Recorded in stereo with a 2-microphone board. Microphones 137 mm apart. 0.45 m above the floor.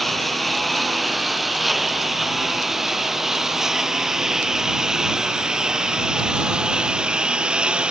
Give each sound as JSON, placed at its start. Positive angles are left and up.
{"t": 0.0, "sound": "a lawn mower", "side_deg": 0}